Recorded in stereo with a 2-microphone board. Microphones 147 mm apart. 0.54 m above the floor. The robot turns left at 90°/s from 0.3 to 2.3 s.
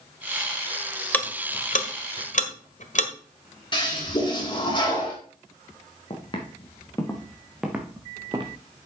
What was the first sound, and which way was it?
Ticking, 10° left (ahead or behind).